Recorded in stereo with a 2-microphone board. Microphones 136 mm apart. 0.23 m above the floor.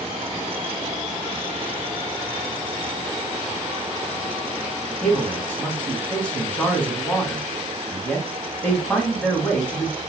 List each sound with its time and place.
5.0 s a man speaking: 10° left (ahead or behind), 1.7 m